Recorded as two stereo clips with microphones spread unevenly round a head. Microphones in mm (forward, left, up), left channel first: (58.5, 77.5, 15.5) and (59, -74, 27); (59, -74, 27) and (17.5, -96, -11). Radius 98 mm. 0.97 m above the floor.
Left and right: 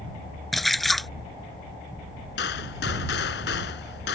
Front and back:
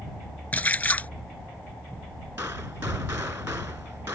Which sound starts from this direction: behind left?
A gunshot, at 2.4 s.